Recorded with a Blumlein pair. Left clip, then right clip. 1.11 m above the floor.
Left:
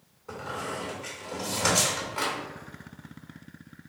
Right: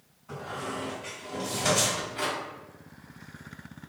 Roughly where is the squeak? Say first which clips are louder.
Left 1 dB; ahead left.